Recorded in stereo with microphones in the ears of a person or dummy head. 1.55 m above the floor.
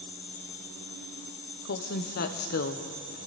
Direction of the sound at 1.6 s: 55° left (ahead or behind).